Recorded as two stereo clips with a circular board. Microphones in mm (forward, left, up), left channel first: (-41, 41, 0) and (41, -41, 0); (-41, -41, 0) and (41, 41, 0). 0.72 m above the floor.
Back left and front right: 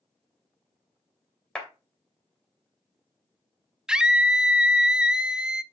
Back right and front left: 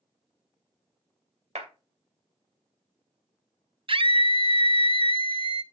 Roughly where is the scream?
Ahead left.